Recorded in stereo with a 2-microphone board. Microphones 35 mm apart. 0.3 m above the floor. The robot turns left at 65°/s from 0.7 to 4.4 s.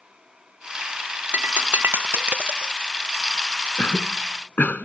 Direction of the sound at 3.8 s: 70° left (ahead or behind).